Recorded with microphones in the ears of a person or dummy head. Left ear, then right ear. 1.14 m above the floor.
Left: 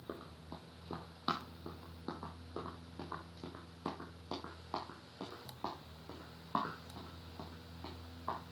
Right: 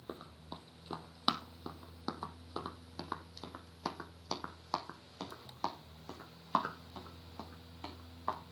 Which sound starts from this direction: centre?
Running footsteps, at 0.1 s.